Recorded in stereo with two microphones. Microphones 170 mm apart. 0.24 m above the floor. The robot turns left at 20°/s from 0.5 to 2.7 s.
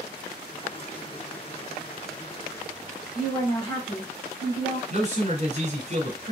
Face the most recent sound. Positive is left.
turn(degrees=-40)  # may be behind; listen again after turning